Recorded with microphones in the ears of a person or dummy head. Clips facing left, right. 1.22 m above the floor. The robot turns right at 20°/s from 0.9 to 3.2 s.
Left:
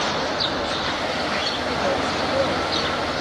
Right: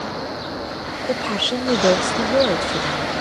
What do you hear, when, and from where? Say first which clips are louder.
1.1 s a woman speaking: right 3 dB; 90° right; by 3.1 s 50° right